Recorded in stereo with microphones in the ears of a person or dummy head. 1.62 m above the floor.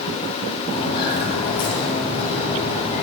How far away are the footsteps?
About 2.5 m.